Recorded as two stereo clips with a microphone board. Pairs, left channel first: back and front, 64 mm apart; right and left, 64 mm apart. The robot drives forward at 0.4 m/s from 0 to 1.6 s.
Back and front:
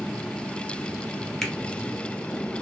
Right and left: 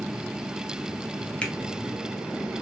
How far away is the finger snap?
About 0.6 m.